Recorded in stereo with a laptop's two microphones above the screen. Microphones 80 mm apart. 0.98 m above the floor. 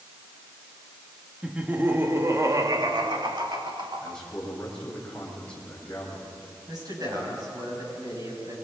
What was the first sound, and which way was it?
Laughter, 10° right (ahead or behind).